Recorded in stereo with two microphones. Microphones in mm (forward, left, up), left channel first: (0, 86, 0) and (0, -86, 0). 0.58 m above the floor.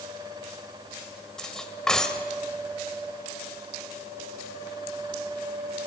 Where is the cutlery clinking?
5° left (ahead or behind), 1.6 m.